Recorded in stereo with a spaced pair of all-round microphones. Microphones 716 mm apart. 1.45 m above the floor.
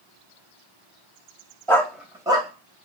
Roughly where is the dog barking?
Centre.